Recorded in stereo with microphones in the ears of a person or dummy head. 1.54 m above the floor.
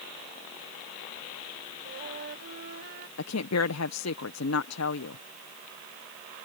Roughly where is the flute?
Right.